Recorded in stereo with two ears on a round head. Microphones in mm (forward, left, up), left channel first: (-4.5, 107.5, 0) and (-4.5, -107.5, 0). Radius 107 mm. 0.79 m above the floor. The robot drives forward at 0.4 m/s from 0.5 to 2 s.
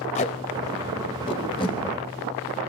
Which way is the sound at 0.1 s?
30° left (ahead or behind).